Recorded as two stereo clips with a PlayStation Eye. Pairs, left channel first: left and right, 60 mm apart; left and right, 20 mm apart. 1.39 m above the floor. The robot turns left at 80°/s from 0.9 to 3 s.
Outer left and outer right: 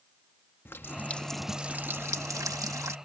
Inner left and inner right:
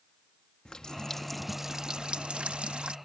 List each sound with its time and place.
0.7 s a running tap: 40° left; by 3.0 s 125° right